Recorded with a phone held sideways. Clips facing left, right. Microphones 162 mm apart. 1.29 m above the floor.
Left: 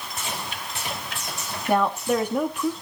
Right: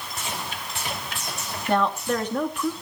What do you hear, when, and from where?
1.7 s a woman speaking: 10° left (ahead or behind), 2 m